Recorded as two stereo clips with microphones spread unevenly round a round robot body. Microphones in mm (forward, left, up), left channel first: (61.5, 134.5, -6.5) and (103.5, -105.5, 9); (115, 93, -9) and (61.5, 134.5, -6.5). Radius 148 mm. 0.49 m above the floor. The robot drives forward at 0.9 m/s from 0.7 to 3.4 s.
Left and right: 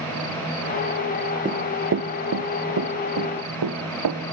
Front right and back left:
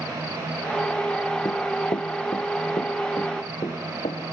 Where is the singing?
No singing in this recording.